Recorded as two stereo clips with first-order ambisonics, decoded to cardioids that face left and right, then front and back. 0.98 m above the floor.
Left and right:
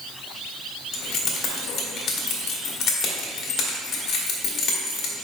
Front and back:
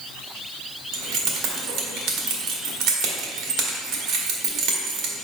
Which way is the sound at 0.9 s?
145° left.